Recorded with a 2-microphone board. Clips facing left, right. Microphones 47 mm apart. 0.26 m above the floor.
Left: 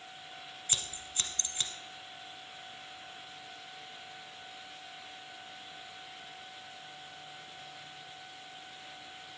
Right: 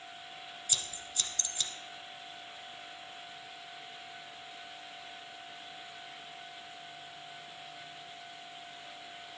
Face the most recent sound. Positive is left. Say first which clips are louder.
# left 1 dB
turn(degrees=30)  # may be behind; listen again after turning